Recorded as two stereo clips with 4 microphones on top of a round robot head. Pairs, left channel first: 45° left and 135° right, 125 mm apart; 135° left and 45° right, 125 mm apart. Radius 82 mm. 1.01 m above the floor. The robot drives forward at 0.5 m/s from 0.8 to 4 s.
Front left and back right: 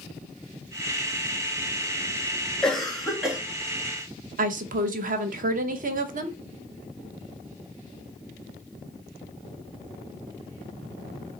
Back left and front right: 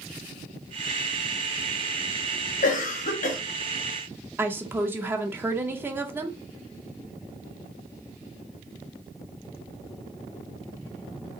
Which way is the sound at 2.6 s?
135° left.